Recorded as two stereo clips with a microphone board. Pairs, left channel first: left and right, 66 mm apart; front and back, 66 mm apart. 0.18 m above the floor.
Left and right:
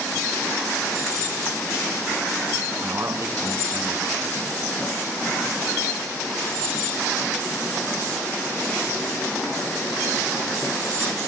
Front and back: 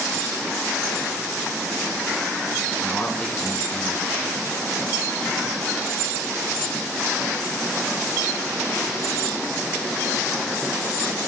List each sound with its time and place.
2.8 s a man speaking: 60° right, 2.5 m